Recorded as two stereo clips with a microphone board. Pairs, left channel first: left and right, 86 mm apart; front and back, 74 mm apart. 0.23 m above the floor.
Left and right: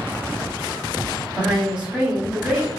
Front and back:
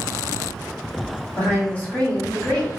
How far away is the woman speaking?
About 1.2 m.